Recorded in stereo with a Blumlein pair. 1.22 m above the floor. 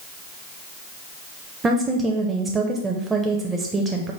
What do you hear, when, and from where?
1.6 s a woman speaking: 15° right, 0.5 m